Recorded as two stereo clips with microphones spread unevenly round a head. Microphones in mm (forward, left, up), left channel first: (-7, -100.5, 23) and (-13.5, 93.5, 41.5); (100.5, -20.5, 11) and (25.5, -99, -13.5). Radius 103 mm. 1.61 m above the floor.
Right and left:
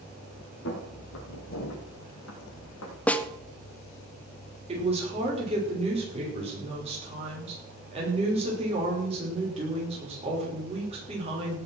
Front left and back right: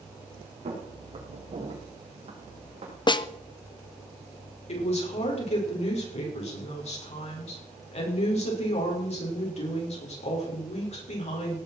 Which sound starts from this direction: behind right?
Footsteps, at 0.7 s.